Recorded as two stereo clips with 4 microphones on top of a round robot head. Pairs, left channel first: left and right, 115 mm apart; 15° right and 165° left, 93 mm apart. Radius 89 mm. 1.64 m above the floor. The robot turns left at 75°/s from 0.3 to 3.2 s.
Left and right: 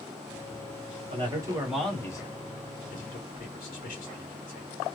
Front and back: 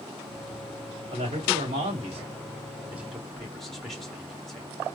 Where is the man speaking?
130° right, 1.5 m; by 4.7 s 75° left, 1.5 m.